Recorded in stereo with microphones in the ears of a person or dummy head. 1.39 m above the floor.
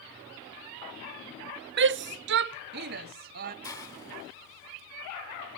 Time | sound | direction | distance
1.8 | a shout | 45° right (ahead or behind) | 0.5 m
3.6 | a hiss | 15° left (ahead or behind) | 1.8 m